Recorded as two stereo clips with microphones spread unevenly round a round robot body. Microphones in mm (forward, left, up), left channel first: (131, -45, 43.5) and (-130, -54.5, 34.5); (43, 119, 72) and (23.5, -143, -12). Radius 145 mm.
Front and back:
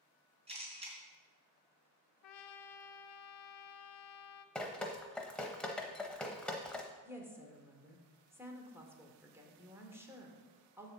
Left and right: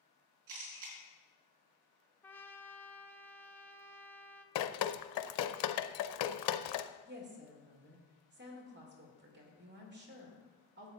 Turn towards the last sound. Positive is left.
turn(degrees=-100)